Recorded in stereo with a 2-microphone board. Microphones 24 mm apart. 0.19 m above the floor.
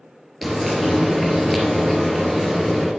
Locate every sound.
0.4 s frying: 5° right (ahead or behind), 3 m